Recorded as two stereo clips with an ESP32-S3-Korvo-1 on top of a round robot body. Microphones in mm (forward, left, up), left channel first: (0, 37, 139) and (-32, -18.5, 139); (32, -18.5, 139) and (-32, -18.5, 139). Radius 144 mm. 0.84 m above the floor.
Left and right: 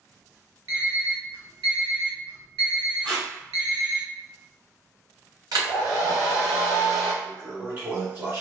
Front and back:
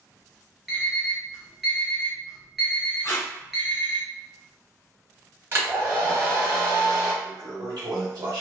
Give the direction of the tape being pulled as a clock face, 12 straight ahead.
2 o'clock.